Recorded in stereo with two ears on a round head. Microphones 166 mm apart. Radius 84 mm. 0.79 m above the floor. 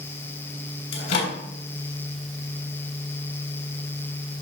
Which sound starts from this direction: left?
A microwave, at 0.9 s.